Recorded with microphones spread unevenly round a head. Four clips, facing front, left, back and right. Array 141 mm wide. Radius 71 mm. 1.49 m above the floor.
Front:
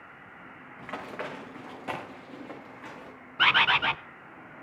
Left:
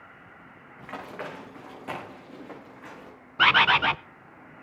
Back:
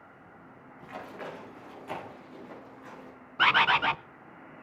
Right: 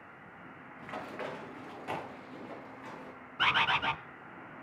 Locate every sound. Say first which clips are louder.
0.8 s running footsteps: left 3 dB, front 4 dB; 25° left, 6.5 m
3.4 s a bird: left 9 dB, back 1 dB; 75° left, 0.5 m